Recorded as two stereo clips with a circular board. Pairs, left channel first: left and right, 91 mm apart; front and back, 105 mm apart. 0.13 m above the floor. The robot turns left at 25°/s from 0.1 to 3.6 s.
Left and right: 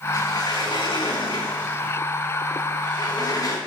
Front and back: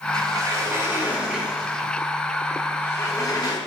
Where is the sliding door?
130° left, 6.5 m; by 3.6 s 45° left, 6.5 m.